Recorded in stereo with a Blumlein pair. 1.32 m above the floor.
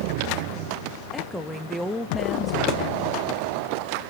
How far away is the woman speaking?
About 1.5 m.